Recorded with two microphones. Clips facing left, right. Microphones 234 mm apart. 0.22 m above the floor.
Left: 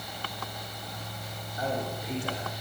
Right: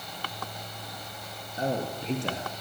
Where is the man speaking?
25° right (ahead or behind), 5.5 m.